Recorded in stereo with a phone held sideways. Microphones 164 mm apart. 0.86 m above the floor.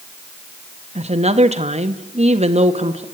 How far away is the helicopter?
I don't hear a helicopter.